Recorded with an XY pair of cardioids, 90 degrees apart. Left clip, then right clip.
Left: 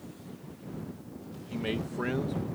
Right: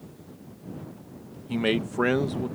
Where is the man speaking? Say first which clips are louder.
Right 8 dB; 65° right.